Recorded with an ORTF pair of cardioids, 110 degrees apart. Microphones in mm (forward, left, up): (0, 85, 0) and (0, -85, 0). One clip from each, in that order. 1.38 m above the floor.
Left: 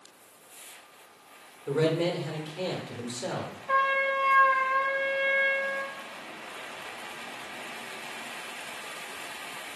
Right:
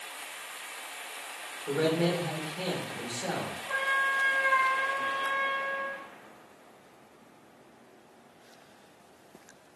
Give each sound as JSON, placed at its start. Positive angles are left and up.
{"t": 1.7, "sound": "a man speaking", "azimuth_deg": 30, "distance_m": 1.8}
{"t": 3.7, "sound": "a trumpet", "azimuth_deg": 55, "distance_m": 1.8}